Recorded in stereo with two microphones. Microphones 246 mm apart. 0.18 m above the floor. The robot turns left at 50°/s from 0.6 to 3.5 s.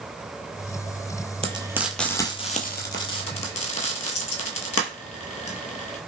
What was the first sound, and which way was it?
Frying, 25° right (ahead or behind).